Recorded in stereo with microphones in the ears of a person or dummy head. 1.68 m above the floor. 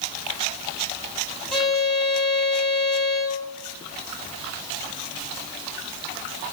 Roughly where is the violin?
Centre.